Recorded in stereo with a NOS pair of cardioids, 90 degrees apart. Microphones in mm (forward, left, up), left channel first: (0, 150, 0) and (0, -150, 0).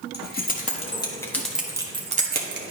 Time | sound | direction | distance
0.1 | keys jangling | 35° left | 1.7 m